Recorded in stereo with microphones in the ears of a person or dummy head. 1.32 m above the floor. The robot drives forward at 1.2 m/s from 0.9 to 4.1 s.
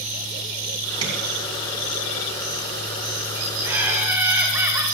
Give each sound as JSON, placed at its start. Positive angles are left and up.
{"t": 1.0, "sound": "tapping", "side_deg": -30, "distance_m": 3.0}
{"t": 3.6, "sound": "laughter", "side_deg": -10, "distance_m": 2.5}